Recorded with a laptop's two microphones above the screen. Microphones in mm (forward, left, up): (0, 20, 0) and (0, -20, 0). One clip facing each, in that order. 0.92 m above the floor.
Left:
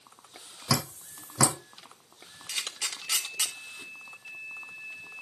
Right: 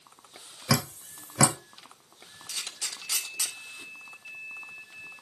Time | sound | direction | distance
0.7 | dripping | 60° right (ahead or behind) | 1.1 m
2.5 | a camera shutter | 50° left (ahead or behind) | 2.0 m